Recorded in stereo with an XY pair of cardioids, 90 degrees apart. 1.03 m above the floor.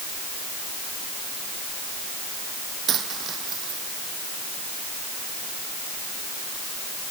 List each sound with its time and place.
2.9 s a dropped coin: 65° right